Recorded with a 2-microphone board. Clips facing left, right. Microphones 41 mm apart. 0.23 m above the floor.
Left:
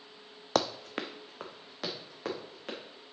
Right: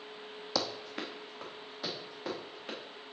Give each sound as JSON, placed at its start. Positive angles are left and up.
{"t": 0.6, "sound": "running footsteps", "side_deg": 55, "distance_m": 0.5}